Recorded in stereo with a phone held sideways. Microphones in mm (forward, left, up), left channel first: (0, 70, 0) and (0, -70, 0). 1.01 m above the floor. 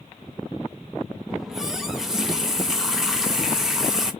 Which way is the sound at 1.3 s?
5° right (ahead or behind).